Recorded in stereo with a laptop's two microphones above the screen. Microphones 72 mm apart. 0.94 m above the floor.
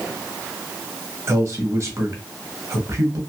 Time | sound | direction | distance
1.3 | a man speaking | 40° right (ahead or behind) | 0.8 m